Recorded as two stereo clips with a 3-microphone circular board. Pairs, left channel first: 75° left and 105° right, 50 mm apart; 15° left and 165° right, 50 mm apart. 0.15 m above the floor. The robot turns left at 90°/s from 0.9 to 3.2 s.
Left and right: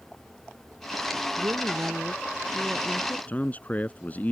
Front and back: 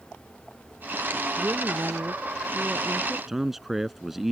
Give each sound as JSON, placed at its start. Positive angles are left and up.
{"t": 1.4, "sound": "a woman speaking", "azimuth_deg": -100}
{"t": 3.3, "sound": "a man speaking", "azimuth_deg": 110}